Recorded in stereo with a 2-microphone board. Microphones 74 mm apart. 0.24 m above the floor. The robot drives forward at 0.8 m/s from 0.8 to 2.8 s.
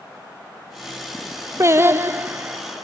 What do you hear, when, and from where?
1.6 s singing: 40° right (ahead or behind), 1.0 m; by 2.6 s 20° right (ahead or behind), 1.7 m